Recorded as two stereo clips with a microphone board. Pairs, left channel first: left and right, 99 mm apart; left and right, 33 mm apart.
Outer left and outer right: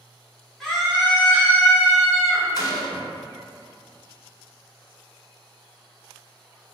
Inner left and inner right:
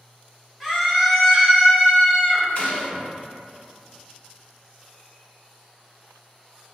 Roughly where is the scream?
Centre.